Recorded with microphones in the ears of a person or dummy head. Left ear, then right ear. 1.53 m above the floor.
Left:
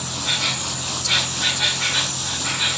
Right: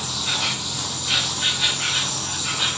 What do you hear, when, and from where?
0.0 s an insect: 15° right (ahead or behind), 1.8 m